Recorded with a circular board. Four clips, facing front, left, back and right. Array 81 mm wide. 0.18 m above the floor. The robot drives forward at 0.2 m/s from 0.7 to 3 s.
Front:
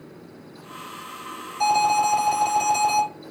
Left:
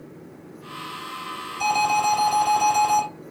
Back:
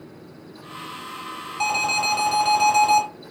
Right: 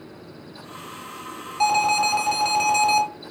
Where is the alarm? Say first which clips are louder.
Right 1 dB, front 5 dB; 140° right, 2.5 m; by 3.0 s 145° right, 3 m.